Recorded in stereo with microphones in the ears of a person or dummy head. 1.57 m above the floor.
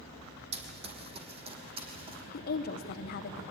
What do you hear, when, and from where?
0.5 s running footsteps: 40° right (ahead or behind), 2.5 m; by 2.2 s 35° right (ahead or behind), 3.5 m
2.3 s a woman speaking: 60° left (ahead or behind), 1.2 m